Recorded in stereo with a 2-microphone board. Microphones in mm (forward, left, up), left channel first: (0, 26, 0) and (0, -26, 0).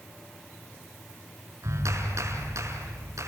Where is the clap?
75° right (ahead or behind), 4.5 m.